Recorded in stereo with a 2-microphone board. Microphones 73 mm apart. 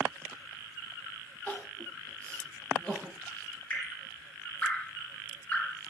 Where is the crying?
15° left (ahead or behind), 0.9 m.